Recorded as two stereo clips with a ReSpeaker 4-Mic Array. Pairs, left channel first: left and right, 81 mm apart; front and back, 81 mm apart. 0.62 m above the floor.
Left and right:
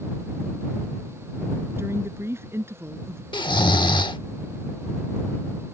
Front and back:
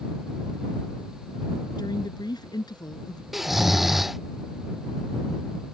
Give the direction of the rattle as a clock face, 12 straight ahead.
No rattle in this recording.